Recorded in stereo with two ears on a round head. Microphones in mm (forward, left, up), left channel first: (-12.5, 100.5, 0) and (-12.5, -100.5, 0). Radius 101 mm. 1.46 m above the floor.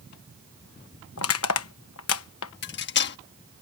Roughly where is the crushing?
Left.